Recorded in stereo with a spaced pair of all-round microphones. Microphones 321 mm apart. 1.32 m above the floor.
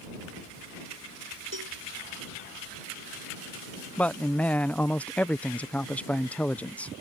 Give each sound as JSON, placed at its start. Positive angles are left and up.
{"t": 1.5, "sound": "a cowbell", "side_deg": -75}
{"t": 4.0, "sound": "a man speaking", "side_deg": 5}